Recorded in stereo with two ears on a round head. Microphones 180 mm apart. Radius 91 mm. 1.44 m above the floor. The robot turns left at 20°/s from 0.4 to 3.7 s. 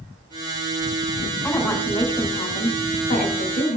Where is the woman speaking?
175° left, 2.5 m; by 3.8 s 130° left, 2.5 m.